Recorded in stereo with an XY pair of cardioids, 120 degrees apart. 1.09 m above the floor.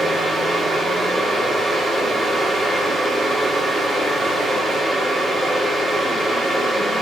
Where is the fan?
25° right, 3 m.